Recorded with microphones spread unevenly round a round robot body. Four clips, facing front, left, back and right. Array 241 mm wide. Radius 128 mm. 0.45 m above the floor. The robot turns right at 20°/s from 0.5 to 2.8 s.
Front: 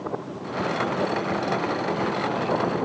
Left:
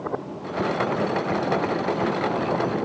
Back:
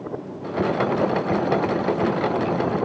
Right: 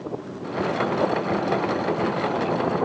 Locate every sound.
Only background noise.